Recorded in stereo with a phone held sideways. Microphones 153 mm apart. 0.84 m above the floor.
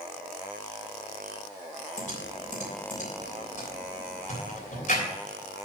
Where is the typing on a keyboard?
60° left (ahead or behind), 3 m.